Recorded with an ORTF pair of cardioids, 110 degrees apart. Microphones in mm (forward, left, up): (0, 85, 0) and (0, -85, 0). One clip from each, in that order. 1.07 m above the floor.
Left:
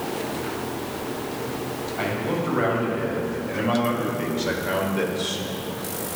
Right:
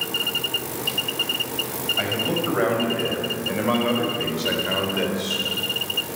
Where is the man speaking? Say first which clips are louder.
Right 2 dB; 30° right, 4.5 m; by 5.5 s 5° left, 3 m.